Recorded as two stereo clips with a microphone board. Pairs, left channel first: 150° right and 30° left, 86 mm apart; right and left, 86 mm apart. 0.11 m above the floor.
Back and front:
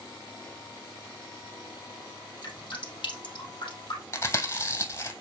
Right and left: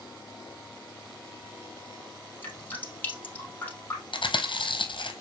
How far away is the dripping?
About 3 m.